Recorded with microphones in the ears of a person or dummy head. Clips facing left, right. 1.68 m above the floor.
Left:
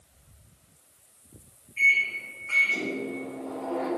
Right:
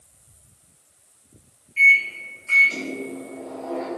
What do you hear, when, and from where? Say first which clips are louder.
1.8 s a microwave: right 6 dB; 35° right (ahead or behind), 0.7 m